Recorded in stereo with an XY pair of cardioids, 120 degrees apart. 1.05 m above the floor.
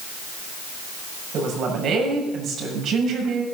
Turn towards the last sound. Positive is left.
turn(degrees=-55)